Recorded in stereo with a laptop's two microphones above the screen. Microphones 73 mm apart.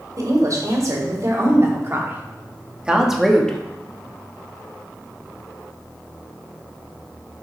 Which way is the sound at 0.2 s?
50° right (ahead or behind).